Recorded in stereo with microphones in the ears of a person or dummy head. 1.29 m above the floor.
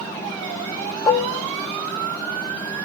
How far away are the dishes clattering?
About 0.6 m.